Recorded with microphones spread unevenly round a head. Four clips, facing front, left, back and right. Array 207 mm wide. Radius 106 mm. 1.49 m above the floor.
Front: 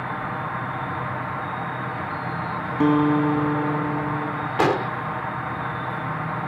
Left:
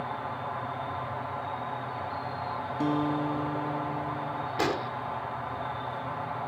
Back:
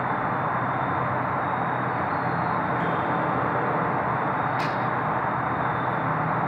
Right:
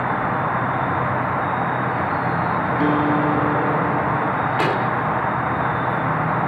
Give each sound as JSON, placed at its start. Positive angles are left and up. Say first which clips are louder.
{"t": 0.0, "sound": "an insect", "louder": "right 13 dB, back 3 dB", "azimuth_deg": -90}
{"t": 2.8, "sound": "a guitar", "louder": "right 8 dB, front 6 dB", "azimuth_deg": -25}
{"t": 4.6, "sound": "an explosion", "louder": "right 6 dB, front 5 dB", "azimuth_deg": -20}